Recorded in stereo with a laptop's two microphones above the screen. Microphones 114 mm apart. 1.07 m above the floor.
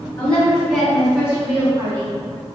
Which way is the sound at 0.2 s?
15° left (ahead or behind).